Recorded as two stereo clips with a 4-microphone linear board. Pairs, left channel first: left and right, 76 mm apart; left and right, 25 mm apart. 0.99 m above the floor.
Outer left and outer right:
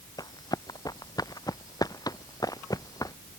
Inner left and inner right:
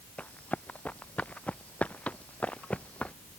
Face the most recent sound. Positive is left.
turn(degrees=55)  # may be behind; listen again after turning